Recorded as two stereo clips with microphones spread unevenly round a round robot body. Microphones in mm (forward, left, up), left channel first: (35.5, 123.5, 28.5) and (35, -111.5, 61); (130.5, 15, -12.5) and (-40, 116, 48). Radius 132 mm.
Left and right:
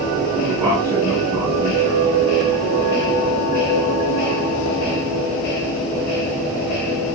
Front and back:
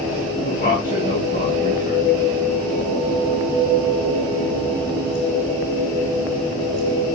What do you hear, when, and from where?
0.4 s a man speaking: straight ahead, 5 m